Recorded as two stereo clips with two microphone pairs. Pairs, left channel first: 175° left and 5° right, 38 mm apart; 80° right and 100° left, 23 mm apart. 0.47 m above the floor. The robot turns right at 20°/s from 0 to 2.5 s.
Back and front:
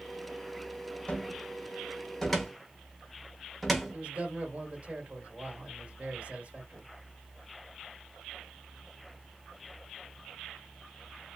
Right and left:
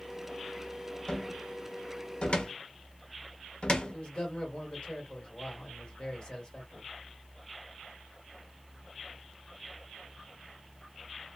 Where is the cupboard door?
120° right, 0.9 m; by 4.0 s 95° right, 0.9 m.